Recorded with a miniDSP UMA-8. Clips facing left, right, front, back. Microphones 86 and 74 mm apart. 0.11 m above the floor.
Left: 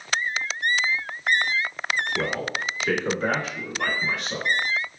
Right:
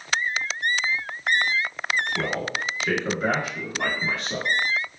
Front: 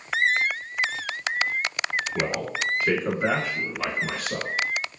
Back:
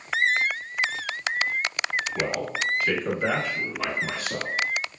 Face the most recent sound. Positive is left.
turn(degrees=-110)